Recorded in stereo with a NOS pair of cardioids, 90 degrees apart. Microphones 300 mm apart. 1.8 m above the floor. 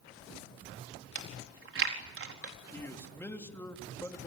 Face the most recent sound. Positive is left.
turn(degrees=10)